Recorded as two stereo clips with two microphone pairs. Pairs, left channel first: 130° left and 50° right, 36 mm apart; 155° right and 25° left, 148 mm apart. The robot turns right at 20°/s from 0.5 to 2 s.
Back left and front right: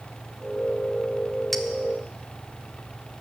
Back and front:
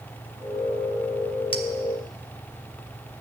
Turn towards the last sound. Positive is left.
turn(degrees=-145)